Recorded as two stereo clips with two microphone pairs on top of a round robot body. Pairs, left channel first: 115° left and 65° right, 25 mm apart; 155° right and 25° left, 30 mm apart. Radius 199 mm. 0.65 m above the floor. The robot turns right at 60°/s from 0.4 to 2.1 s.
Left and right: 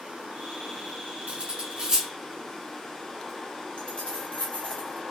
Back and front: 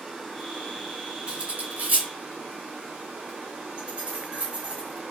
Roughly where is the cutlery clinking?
Ahead right.